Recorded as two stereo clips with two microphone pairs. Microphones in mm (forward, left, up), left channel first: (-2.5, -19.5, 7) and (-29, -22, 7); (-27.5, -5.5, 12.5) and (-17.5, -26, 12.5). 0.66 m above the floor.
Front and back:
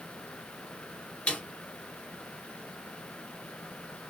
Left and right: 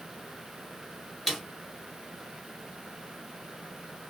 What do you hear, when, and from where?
1.3 s a snare drum: 25° left, 1.7 m